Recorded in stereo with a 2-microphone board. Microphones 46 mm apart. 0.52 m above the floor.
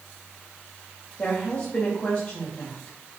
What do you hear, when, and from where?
1.2 s a woman speaking: 35° left (ahead or behind), 2.5 m